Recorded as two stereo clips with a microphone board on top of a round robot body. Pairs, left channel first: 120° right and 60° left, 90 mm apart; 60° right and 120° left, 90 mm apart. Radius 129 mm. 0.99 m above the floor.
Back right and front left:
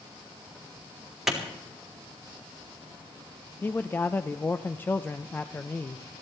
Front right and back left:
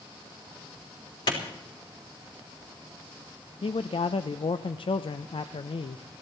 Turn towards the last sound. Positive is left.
turn(degrees=-55)